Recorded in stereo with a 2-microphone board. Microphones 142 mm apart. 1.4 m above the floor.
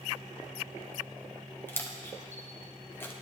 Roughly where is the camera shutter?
Centre.